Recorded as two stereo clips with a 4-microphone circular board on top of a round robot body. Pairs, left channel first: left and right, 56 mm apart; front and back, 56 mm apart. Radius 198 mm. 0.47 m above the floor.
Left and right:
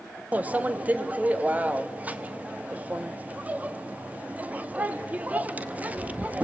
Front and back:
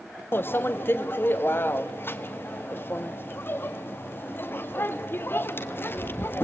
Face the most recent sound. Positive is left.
turn(degrees=-35)